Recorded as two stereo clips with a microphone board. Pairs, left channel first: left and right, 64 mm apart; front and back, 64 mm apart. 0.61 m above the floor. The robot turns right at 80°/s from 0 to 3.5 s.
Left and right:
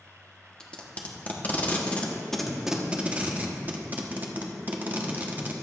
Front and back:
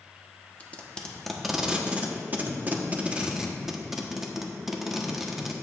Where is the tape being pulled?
30° left, 1.2 m; by 5.5 s 100° right, 1.2 m.